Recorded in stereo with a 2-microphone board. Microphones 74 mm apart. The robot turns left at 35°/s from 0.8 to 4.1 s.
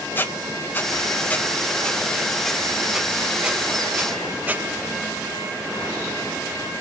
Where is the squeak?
25° left (ahead or behind), 0.7 m; by 4.7 s 25° right (ahead or behind), 0.7 m.